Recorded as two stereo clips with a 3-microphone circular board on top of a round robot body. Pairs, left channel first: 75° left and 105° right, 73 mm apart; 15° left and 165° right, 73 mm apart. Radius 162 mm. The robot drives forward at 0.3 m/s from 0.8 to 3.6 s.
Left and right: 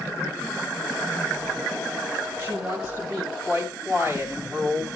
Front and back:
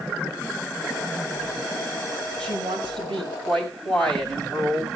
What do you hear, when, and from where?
2.4 s a woman speaking: 170° right, 6 m